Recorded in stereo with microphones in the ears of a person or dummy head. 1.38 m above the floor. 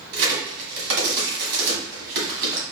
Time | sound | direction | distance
0.1 | a crack | 60° right (ahead or behind) | 1.8 m